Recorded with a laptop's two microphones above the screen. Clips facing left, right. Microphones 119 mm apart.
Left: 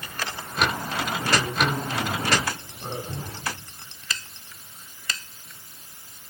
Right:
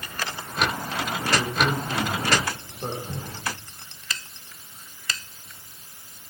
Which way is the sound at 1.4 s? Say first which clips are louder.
Right 2 dB; 50° right (ahead or behind).